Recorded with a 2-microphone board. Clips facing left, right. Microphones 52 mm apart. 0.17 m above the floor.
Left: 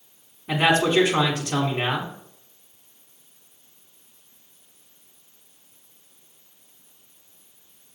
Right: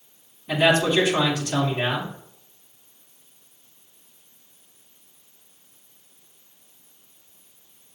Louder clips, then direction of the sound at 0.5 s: Even; 35° left (ahead or behind).